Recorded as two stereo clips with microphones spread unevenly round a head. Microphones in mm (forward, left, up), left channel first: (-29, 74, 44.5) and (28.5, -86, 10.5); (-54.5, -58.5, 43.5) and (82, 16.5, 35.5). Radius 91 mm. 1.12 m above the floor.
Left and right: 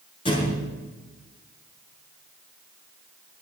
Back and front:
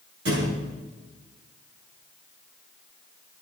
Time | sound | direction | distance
0.2 | a thud | 50° left | 4 m